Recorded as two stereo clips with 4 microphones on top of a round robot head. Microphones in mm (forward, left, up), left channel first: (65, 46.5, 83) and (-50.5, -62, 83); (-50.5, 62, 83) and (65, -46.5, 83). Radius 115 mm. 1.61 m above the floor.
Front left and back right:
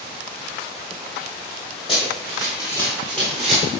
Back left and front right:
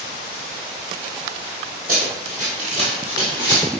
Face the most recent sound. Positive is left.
turn(degrees=-65)